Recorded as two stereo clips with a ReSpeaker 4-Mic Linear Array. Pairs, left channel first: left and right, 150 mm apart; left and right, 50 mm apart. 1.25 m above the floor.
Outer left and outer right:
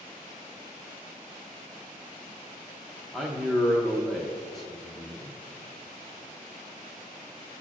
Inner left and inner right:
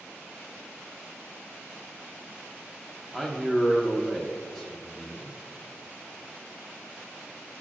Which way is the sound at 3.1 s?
Centre (ahead or behind).